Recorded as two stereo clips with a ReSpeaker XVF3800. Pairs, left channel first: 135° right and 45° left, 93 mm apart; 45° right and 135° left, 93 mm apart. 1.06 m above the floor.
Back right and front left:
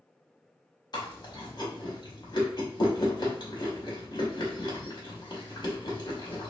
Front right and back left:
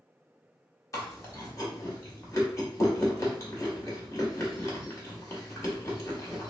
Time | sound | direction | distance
0.9 | chewing | 100° right | 0.9 m